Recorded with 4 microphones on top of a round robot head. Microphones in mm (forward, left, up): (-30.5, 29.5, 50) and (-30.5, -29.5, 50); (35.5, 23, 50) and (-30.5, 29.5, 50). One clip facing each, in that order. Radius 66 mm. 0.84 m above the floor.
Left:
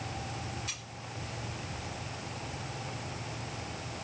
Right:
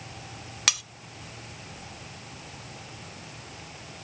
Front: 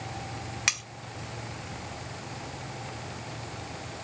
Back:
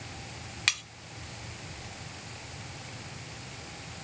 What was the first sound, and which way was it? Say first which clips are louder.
Cutlery clinking: right 13 dB, even; 85° right.